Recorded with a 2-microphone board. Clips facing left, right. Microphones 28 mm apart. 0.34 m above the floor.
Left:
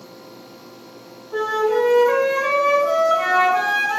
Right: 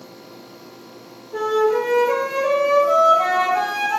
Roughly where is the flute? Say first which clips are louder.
Right 1 dB; left.